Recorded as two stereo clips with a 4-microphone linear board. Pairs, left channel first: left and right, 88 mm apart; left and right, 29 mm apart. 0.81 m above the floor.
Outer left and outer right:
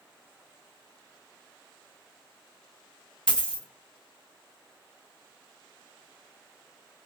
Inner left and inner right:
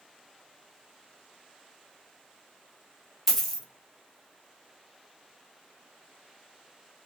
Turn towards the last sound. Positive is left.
turn(degrees=10)  # may be behind; listen again after turning